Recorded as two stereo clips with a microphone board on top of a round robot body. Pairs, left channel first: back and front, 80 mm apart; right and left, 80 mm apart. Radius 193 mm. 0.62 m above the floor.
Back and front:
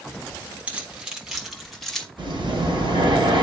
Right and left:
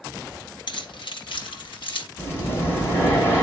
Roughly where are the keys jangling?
Right.